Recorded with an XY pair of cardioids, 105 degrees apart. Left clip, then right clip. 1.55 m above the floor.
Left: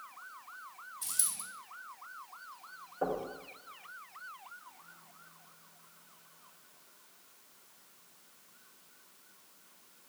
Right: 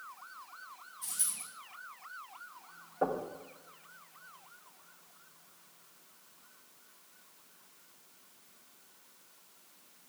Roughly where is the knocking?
Ahead right.